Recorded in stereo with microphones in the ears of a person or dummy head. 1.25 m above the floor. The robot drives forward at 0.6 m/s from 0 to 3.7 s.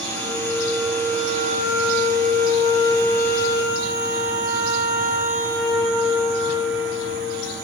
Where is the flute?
10° left (ahead or behind), 2 m; by 7.5 s 20° left (ahead or behind), 0.9 m.